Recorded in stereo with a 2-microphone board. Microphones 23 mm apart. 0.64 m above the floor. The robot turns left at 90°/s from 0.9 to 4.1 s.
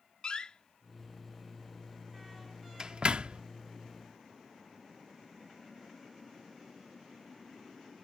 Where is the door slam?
40° left (ahead or behind); by 3.4 s 55° right (ahead or behind).